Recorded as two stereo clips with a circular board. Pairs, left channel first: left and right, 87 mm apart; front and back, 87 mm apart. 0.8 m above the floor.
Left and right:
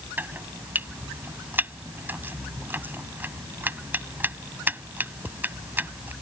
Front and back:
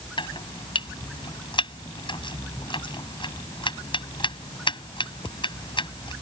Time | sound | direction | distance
0.2 | chopping | 25° right | ?